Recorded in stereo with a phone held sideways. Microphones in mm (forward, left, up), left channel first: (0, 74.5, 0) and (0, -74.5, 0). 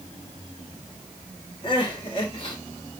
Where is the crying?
35° left (ahead or behind), 4 m.